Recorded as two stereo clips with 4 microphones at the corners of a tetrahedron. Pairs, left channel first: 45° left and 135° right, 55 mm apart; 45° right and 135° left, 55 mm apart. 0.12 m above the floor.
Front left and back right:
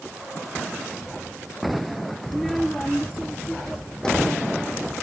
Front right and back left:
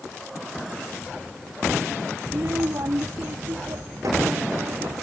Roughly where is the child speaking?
Behind left.